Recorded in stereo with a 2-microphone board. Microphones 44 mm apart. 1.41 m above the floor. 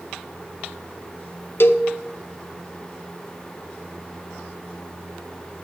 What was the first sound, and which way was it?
A cowbell, 60° left (ahead or behind).